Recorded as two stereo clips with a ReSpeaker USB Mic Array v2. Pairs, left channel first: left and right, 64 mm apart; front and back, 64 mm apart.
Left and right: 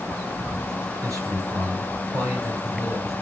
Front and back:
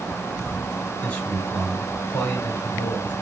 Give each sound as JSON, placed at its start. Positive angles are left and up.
{"t": 1.0, "sound": "a man speaking", "azimuth_deg": -60, "distance_m": 3.5}